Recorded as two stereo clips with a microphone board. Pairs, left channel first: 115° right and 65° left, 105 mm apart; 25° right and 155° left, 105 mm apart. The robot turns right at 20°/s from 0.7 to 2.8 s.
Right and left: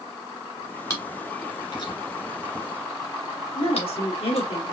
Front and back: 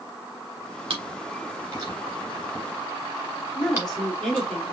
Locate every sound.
0.9 s chewing: 170° right, 1.9 m; by 4.5 s 130° right, 1.9 m
3.5 s a woman speaking: 105° right, 1.5 m